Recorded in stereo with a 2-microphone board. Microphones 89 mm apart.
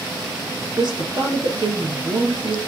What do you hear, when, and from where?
0.8 s a woman speaking: 60° right (ahead or behind), 2 m